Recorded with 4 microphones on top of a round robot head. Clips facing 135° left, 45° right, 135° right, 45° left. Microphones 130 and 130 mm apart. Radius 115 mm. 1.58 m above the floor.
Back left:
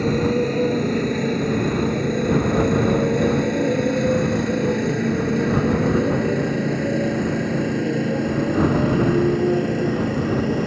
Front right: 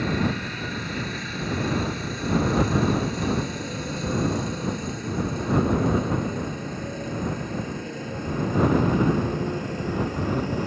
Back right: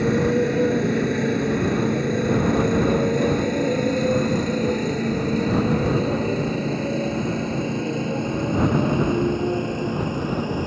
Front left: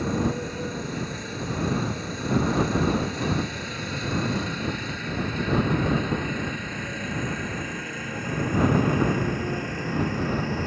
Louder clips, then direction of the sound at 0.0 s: Back left 7 dB, back right 7 dB; 170° right.